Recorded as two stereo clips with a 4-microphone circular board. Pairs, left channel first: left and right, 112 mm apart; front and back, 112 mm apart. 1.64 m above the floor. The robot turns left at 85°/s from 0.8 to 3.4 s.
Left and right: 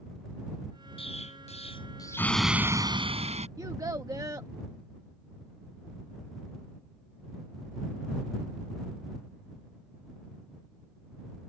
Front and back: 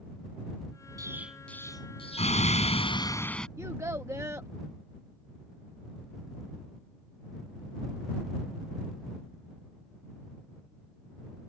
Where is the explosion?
125° left; by 3.5 s 85° right.